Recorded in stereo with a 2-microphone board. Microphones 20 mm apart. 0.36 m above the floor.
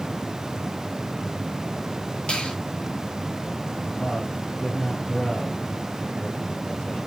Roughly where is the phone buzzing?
I don't hear a phone buzzing.